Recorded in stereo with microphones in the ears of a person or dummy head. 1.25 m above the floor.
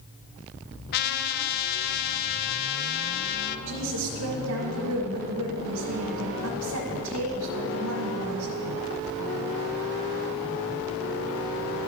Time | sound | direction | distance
0.9 | a trumpet | 50° left (ahead or behind) | 0.5 m
3.7 | a woman speaking | 75° right (ahead or behind) | 1.5 m